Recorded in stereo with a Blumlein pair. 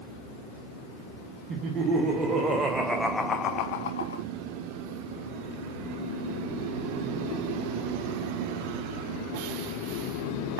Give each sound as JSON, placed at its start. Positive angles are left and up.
{"t": 1.5, "sound": "laughter", "azimuth_deg": -25, "distance_m": 1.9}